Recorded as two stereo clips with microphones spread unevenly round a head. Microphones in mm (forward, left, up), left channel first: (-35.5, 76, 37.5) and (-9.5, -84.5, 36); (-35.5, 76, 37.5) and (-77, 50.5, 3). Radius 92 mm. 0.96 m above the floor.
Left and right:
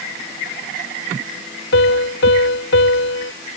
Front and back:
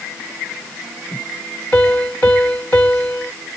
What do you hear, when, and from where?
1.7 s a piano: 85° left